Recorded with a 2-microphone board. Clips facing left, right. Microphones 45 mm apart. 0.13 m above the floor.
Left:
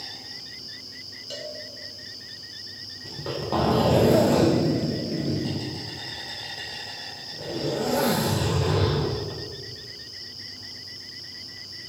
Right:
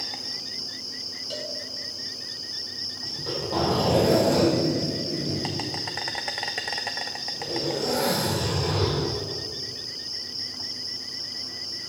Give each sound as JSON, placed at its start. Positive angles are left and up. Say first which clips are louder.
{"t": 0.0, "sound": "an insect", "louder": "right 4 dB", "side_deg": -75, "distance_m": 0.8}
{"t": 1.3, "sound": "a cowbell", "louder": "right 1 dB", "side_deg": -5, "distance_m": 1.0}
{"t": 3.0, "sound": "a zipper", "louder": "left 2 dB", "side_deg": 30, "distance_m": 3.0}